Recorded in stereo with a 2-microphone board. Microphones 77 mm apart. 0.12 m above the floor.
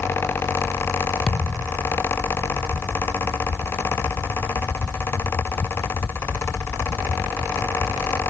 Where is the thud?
10° left (ahead or behind).